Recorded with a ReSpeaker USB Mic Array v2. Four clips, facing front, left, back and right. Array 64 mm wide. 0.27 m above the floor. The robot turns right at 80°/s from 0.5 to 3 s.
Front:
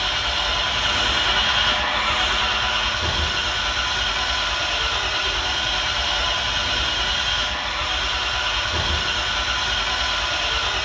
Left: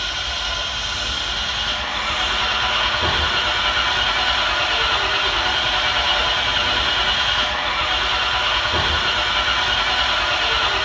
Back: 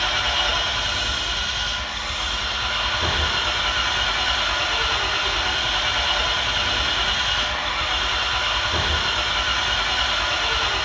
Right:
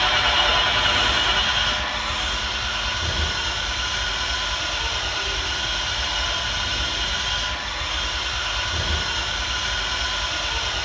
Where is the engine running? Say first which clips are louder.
Right 7 dB, back 1 dB; 90° right, 5.5 m; by 10.9 s 110° left, 5.5 m.